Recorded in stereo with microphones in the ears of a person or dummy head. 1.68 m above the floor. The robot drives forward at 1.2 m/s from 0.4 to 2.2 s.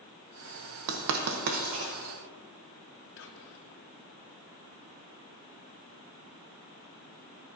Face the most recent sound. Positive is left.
turn(degrees=65)  # may be behind; listen again after turning